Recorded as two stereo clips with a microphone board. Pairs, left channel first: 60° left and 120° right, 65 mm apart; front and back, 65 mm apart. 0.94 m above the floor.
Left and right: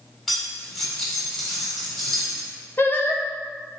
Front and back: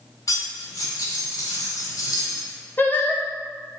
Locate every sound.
0.3 s cutlery clinking: 20° right, 1.9 m
2.8 s singing: 35° left, 0.8 m